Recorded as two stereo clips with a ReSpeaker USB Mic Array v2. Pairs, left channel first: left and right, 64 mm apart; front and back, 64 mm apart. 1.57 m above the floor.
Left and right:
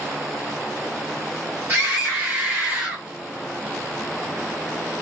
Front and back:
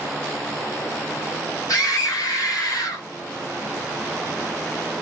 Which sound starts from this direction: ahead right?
A scream, at 1.7 s.